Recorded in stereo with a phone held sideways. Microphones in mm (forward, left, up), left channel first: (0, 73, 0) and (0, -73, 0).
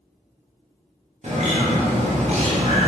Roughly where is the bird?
Right.